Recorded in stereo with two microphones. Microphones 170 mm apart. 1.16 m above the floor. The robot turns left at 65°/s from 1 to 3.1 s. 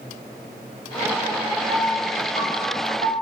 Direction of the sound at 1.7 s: 50° right.